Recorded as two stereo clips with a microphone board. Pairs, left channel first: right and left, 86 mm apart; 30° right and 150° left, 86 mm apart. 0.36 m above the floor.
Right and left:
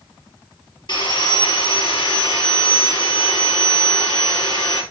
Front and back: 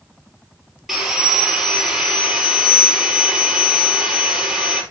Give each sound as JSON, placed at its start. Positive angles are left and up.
{"t": 0.9, "sound": "sawing", "azimuth_deg": -125, "distance_m": 3.5}